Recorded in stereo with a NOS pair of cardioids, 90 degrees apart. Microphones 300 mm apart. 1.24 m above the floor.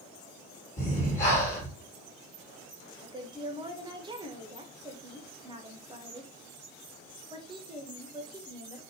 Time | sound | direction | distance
0.8 | breathing | 25° left | 1.5 m
3.0 | a woman speaking | 15° right | 0.8 m